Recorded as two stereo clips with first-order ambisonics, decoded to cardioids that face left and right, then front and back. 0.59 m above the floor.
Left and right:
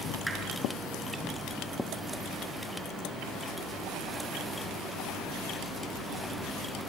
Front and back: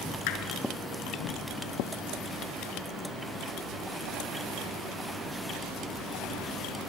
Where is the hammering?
5° right, 4.5 m.